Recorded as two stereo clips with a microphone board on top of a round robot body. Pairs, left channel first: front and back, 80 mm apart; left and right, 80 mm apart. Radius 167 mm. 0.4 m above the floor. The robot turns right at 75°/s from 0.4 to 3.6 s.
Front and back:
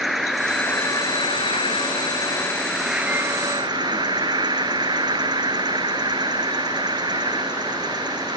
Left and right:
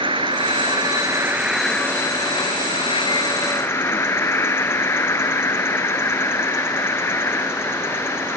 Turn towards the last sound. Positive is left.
turn(degrees=150)